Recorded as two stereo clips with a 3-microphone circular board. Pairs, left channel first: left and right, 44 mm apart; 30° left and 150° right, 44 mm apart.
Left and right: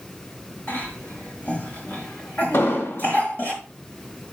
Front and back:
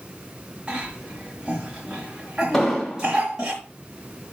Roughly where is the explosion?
Left.